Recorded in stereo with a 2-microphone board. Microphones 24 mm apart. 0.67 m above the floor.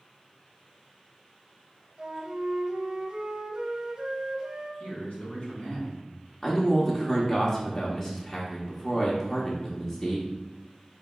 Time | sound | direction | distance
2.0 | a flute | 35° right (ahead or behind) | 0.8 m
4.8 | a man speaking | 55° left (ahead or behind) | 1.8 m
6.4 | a man speaking | 20° left (ahead or behind) | 0.7 m